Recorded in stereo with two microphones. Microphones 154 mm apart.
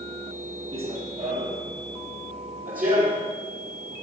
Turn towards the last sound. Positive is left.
turn(degrees=-60)  # may be behind; listen again after turning